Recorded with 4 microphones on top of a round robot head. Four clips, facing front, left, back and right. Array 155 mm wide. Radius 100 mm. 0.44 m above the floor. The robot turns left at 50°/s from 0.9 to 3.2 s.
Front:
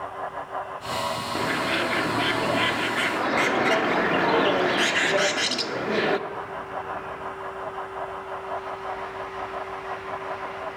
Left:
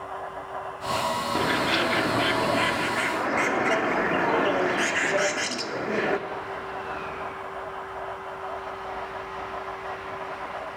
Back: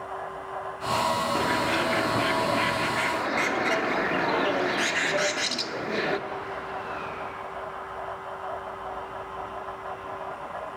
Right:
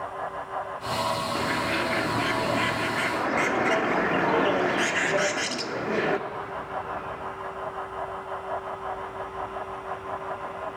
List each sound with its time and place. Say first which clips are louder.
1.4 s a bird: left 2 dB, back 1 dB; 95° left, 1.1 m; by 6.2 s straight ahead, 1.1 m